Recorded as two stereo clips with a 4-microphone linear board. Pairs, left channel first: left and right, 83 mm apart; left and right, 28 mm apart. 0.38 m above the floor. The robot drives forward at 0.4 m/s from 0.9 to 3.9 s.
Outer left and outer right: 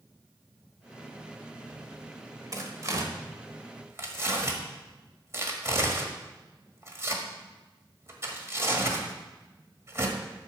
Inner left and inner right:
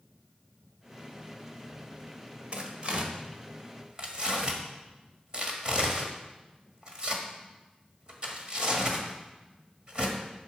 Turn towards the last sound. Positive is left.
turn(degrees=-35)  # may be behind; listen again after turning